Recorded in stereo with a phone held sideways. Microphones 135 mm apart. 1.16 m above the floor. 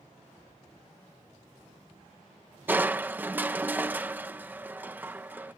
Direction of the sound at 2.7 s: 15° right (ahead or behind).